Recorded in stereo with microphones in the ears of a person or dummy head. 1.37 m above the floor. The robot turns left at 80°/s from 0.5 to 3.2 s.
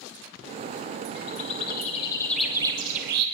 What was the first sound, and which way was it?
A bird, 105° left.